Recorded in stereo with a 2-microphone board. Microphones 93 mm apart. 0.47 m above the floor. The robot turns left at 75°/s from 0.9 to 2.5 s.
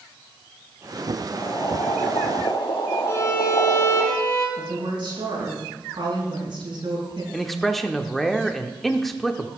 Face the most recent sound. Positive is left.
turn(degrees=0)  # may be behind; listen again after turning